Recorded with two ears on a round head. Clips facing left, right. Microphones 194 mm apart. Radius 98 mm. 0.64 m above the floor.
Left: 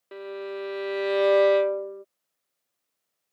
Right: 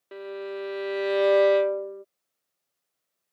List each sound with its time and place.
0.1 s a violin: centre (ahead or behind)